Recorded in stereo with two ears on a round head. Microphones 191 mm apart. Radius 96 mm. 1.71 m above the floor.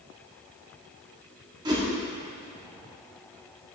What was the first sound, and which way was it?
A whoosh, 20° right (ahead or behind).